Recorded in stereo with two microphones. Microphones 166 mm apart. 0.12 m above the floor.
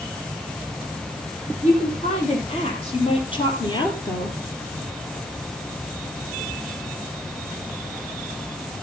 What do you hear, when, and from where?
1.6 s a woman speaking: 45° left (ahead or behind), 6 m; by 4.4 s 20° left (ahead or behind), 2.5 m